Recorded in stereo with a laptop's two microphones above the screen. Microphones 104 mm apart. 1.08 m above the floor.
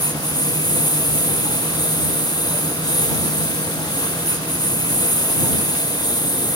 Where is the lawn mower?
40° left (ahead or behind).